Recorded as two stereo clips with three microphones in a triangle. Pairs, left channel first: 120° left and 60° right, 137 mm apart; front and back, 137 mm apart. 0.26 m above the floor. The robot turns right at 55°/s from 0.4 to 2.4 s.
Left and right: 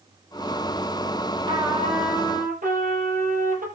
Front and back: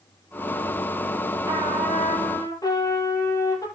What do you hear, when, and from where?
1.5 s a trumpet: 115° right, 6.5 m; by 3.7 s 65° right, 6.5 m